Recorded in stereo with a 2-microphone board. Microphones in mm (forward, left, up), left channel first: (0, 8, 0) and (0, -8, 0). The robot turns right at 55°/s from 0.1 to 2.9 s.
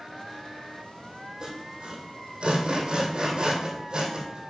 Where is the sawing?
50° right (ahead or behind), 2.5 m.